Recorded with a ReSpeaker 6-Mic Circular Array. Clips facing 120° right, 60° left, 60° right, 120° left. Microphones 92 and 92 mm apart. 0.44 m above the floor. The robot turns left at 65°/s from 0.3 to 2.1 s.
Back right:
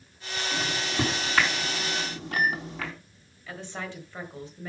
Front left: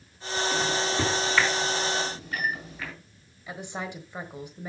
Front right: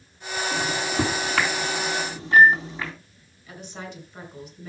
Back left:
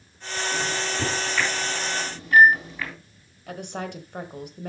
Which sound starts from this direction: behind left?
A woman speaking, at 3.5 s.